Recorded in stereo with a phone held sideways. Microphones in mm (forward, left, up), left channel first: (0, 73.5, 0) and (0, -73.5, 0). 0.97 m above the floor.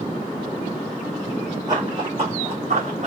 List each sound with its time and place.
1.7 s running footsteps: 30° right (ahead or behind), 3 m; by 3.1 s 55° right (ahead or behind), 3 m